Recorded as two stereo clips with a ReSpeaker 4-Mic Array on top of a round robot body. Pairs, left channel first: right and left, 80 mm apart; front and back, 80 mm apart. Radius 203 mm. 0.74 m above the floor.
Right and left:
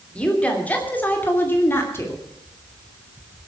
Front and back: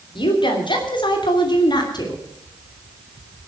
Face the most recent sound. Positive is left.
turn(degrees=-35)